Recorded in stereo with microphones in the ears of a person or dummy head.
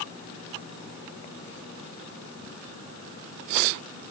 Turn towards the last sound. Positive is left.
No sound to turn to.